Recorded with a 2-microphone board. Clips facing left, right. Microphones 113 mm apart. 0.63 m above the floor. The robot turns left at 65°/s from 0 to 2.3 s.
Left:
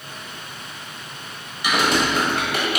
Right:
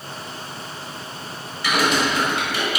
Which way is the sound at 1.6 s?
20° left (ahead or behind).